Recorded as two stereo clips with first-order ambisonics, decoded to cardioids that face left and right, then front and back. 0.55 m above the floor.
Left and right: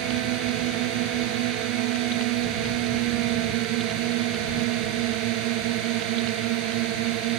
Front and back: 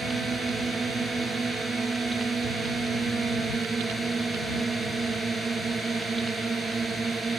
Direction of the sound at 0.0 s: 105° right.